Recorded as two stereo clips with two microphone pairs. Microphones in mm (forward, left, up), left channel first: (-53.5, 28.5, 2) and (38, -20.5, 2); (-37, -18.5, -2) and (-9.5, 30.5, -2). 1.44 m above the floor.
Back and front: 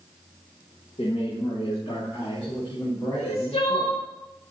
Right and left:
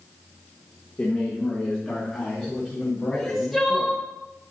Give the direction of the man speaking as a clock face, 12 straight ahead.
6 o'clock.